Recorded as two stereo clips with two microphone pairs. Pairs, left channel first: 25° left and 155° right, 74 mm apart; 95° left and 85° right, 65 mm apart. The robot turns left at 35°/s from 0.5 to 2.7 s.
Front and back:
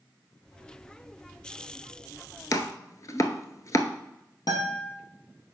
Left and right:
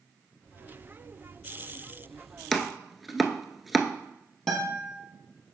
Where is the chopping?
10° left, 0.6 m; by 3.9 s straight ahead, 0.6 m.